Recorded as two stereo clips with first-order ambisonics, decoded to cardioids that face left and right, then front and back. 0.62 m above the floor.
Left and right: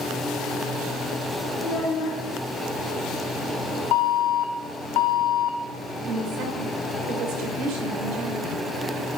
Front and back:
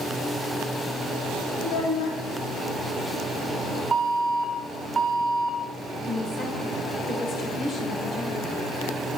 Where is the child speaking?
40° left, 2.5 m.